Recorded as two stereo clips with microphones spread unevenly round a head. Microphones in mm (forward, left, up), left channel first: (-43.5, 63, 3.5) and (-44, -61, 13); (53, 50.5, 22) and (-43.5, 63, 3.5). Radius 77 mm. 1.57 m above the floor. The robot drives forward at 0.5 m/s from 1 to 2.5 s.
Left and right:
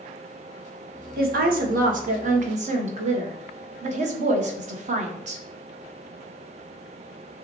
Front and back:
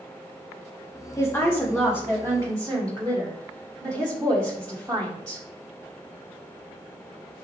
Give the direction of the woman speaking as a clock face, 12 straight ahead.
3 o'clock.